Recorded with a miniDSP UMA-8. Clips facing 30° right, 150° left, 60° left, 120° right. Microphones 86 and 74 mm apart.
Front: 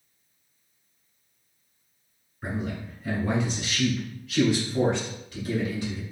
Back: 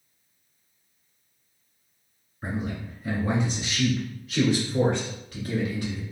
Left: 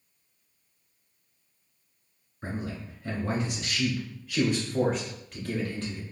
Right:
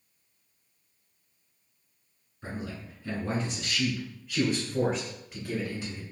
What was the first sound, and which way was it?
A man speaking, 75° left.